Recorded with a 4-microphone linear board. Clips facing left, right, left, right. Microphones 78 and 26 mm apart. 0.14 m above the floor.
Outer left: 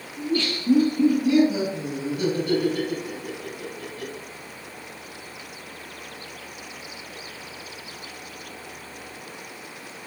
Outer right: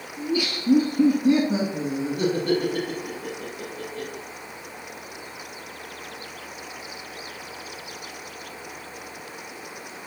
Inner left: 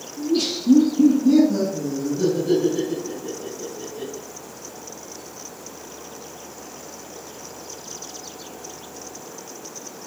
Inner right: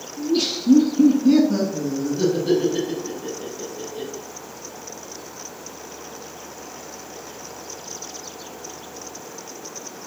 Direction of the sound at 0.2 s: 5° right (ahead or behind).